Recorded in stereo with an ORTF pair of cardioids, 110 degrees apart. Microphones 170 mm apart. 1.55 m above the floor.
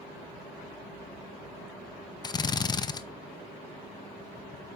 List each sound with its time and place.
2.2 s a drill: 25° left, 0.7 m